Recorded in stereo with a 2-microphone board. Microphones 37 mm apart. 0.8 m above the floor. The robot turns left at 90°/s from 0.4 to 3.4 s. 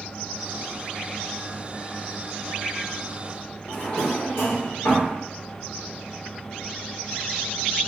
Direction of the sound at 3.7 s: 75° left (ahead or behind).